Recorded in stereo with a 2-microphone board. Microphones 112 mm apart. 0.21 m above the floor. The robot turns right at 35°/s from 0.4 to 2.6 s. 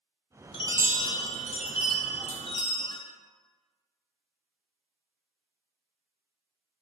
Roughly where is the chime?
Ahead left.